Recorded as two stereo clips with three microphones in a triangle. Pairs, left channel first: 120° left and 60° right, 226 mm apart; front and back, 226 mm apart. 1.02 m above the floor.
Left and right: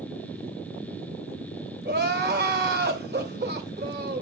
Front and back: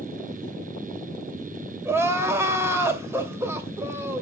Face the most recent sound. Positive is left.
turn(degrees=-100)